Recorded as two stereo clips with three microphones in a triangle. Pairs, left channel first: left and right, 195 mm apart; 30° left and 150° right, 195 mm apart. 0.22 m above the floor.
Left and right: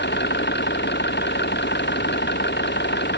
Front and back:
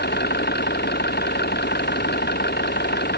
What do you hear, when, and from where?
0.0 s an engine running: 65° left